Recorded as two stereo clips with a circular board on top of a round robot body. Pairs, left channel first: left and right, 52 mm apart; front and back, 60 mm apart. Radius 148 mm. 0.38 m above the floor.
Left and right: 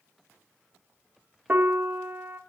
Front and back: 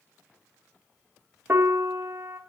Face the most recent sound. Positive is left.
turn(degrees=-135)